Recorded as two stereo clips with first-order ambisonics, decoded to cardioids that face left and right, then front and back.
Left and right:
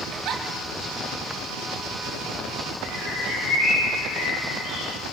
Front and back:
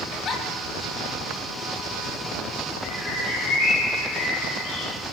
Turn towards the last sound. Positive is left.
turn(degrees=40)